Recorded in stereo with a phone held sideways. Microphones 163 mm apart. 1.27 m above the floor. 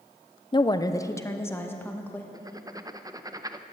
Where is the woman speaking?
30° left (ahead or behind), 0.5 m; by 2.2 s 10° left (ahead or behind), 1.8 m.